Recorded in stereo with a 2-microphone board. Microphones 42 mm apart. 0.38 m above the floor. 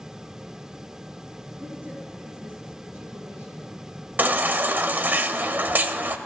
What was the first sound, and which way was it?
A woman speaking, 45° right (ahead or behind).